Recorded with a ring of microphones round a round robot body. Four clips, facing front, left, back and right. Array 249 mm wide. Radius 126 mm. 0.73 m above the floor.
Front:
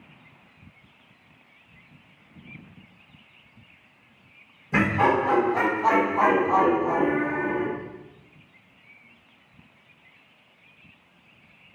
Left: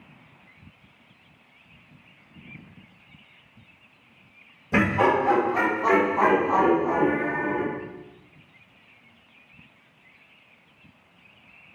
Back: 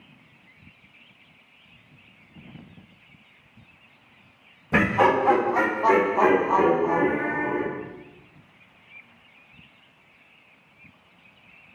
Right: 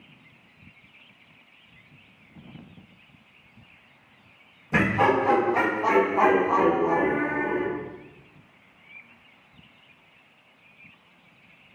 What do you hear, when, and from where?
4.7 s laughter: 165° left, 1.1 m; by 7.7 s 130° right, 2.5 m